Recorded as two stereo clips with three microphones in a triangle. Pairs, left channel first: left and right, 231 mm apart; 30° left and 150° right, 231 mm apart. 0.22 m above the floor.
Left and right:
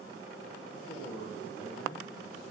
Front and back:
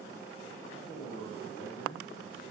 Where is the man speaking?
75° left, 8.5 m; by 2.4 s 65° left, 9.5 m.